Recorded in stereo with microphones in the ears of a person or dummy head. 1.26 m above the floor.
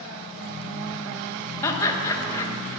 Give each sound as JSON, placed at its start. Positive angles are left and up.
{"t": 1.6, "sound": "laughter", "side_deg": 20, "distance_m": 1.1}